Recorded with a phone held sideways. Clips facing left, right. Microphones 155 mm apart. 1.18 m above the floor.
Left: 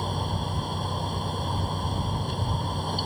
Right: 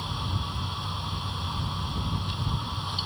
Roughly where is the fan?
Left.